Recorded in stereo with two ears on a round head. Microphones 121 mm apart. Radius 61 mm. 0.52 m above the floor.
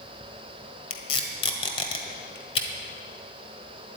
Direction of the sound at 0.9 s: 45° left (ahead or behind).